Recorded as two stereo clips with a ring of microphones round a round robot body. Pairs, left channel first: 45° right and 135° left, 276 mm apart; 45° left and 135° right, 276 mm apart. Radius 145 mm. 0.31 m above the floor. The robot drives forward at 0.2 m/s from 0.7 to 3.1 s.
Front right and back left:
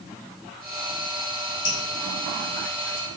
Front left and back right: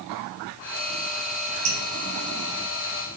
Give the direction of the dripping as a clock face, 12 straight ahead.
4 o'clock.